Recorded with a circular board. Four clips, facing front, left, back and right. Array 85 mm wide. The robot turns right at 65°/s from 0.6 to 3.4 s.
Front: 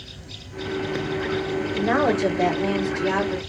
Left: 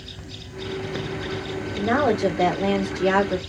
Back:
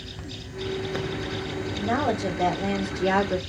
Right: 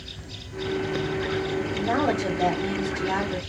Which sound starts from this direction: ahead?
A woman speaking, at 1.7 s.